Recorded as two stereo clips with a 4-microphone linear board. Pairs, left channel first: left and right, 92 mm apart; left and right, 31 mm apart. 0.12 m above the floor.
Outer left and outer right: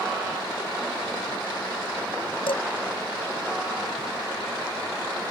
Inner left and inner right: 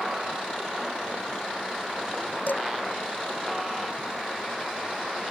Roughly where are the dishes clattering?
Left.